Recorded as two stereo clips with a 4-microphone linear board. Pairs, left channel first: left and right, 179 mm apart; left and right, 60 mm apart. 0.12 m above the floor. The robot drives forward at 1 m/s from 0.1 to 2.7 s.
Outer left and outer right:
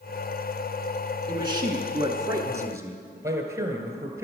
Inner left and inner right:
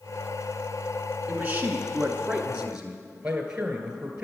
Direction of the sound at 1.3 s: 25° right (ahead or behind).